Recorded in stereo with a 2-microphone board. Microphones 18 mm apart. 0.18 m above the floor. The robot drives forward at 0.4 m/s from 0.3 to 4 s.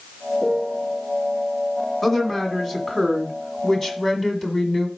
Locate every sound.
0.4 s a piano: 30° right (ahead or behind), 0.7 m; by 1.0 s 20° right (ahead or behind), 0.9 m
2.0 s a woman speaking: 20° left (ahead or behind), 1.8 m